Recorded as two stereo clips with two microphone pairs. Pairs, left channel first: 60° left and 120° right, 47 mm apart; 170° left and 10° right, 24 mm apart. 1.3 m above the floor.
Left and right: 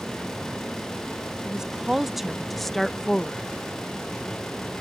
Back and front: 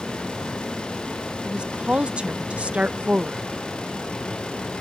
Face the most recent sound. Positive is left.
turn(degrees=-5)